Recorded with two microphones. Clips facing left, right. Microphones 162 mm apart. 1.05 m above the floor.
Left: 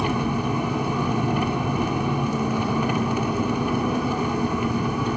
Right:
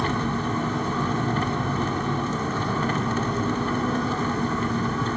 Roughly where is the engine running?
Centre.